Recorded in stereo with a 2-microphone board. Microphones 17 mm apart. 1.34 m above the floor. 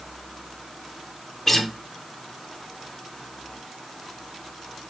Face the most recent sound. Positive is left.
turn(degrees=15)  # may be behind; listen again after turning